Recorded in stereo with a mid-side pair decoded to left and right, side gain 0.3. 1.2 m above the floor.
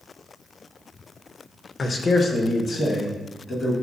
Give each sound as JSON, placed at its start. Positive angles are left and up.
{"t": 1.8, "sound": "a man speaking", "azimuth_deg": 55, "distance_m": 0.5}